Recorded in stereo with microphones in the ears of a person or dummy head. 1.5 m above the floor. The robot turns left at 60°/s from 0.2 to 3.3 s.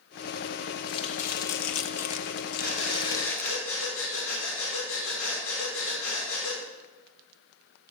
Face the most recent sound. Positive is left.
turn(degrees=80)